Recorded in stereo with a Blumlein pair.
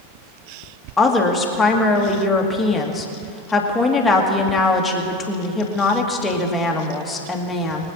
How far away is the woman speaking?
About 2 m.